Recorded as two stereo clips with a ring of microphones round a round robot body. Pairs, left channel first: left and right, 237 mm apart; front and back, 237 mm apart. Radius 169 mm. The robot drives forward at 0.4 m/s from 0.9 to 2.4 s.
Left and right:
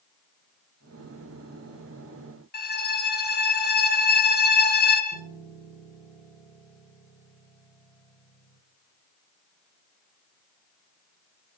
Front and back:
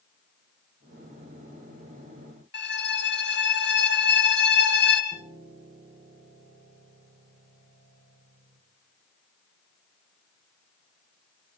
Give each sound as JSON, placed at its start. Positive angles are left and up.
{"t": 2.5, "sound": "a violin", "azimuth_deg": 40, "distance_m": 3.0}
{"t": 5.1, "sound": "a piano", "azimuth_deg": 110, "distance_m": 4.0}